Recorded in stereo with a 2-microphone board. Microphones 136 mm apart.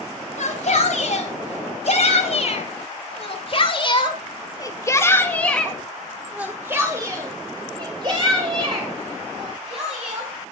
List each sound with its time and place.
0.4 s a shout: 65° left (ahead or behind), 3 m; by 10.3 s 50° right (ahead or behind), 3 m